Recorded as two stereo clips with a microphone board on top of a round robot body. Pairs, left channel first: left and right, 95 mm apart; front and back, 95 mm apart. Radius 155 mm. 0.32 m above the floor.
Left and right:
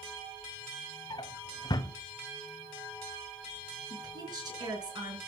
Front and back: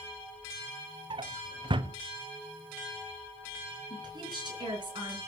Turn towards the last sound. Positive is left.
turn(degrees=-135)